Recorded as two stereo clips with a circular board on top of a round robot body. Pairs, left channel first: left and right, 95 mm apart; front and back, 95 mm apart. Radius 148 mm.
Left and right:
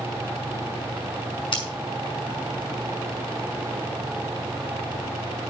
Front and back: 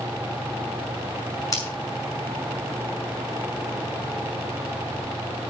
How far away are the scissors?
About 6 m.